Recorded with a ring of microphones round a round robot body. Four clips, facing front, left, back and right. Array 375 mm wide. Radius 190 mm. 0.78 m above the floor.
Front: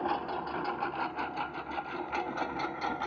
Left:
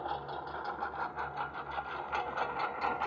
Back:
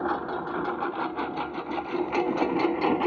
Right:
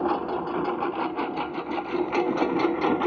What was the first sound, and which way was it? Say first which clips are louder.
A lawn mower: right 12 dB, back 4 dB; 105° right.